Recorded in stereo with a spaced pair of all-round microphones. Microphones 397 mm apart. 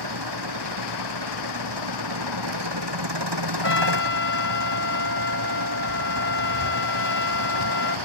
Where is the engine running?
90° right.